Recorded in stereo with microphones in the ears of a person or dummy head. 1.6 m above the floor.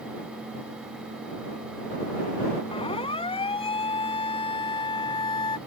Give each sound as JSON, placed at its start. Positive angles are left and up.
{"t": 2.7, "sound": "a siren", "side_deg": 25}